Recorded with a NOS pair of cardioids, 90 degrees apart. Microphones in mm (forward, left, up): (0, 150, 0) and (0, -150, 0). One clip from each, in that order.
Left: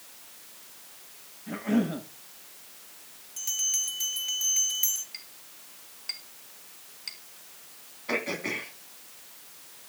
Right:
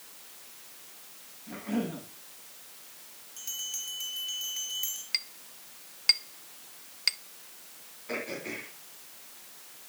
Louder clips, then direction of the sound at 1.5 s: Left 5 dB; 55° left.